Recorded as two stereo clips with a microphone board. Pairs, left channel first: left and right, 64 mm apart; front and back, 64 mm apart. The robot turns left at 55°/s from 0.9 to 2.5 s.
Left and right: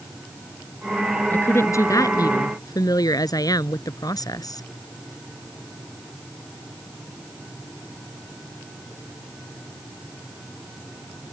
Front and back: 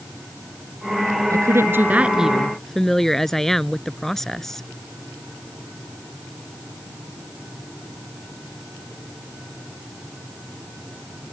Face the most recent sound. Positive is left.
turn(degrees=85)